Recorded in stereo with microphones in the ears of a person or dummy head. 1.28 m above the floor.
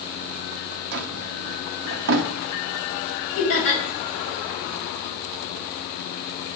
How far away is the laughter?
About 7.5 m.